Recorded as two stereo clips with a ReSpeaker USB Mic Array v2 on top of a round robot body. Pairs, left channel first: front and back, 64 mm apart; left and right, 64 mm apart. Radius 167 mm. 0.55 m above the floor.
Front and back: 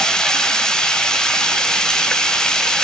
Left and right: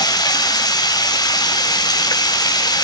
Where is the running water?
80° left, 1.5 m.